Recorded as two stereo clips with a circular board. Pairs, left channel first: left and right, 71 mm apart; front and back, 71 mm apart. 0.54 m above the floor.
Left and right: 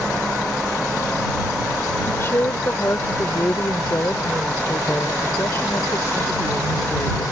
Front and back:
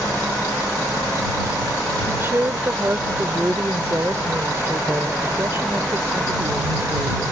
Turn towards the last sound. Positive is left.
turn(degrees=135)